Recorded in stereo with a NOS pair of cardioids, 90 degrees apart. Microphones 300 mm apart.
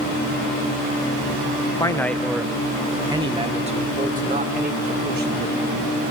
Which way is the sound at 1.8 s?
10° left.